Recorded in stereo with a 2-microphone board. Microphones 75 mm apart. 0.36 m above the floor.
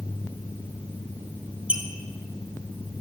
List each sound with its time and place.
1.7 s a squeak: 15° right (ahead or behind), 0.8 m